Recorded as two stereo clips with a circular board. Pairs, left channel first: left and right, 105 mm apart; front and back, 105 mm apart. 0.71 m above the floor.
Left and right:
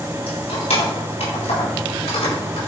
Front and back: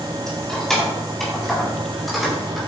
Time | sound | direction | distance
0.3 | keys jangling | 85° left | 4 m